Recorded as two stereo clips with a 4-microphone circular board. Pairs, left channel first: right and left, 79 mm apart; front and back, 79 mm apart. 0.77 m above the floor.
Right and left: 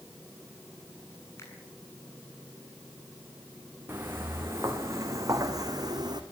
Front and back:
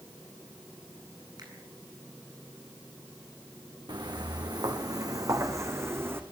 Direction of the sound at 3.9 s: 150° left.